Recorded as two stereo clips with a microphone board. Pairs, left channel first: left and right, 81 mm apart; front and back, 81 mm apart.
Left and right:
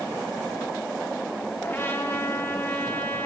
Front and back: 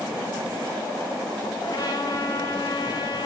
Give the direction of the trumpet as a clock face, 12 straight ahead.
11 o'clock.